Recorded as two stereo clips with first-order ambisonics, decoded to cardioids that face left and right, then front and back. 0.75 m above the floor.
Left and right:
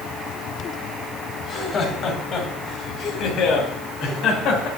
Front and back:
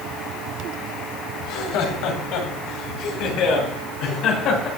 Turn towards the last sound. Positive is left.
turn(degrees=40)